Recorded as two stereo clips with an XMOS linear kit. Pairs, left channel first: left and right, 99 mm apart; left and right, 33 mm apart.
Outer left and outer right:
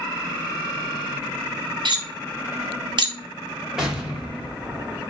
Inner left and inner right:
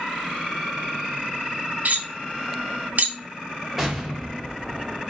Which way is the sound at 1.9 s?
50° right (ahead or behind).